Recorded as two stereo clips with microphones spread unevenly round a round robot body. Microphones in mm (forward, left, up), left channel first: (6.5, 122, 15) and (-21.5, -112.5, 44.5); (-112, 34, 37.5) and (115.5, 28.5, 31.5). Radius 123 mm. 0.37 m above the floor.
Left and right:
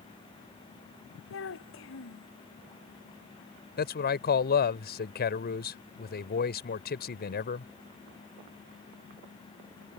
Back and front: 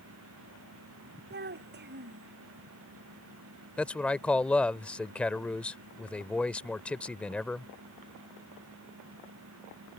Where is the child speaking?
45° left.